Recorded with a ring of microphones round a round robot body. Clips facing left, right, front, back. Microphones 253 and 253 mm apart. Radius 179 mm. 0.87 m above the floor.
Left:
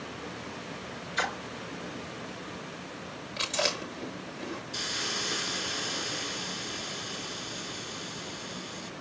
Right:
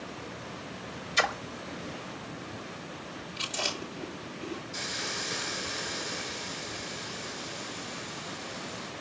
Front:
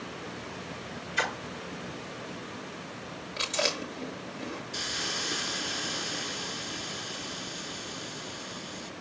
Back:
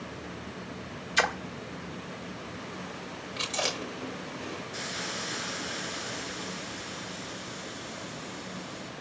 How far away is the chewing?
About 5.5 m.